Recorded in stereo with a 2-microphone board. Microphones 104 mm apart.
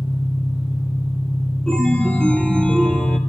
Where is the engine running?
65° left (ahead or behind), 4 m.